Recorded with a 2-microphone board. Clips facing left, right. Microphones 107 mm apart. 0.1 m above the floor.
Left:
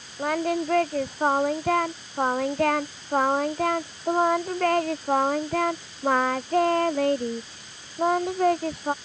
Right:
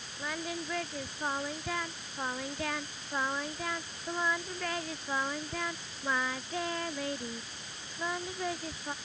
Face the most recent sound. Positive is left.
turn(degrees=60)  # may be behind; listen again after turning